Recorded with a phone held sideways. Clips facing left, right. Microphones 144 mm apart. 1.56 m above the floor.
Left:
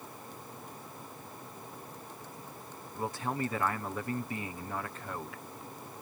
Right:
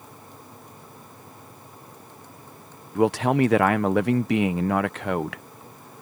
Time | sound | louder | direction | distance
3.0 | a man speaking | right 15 dB | 75° right (ahead or behind) | ?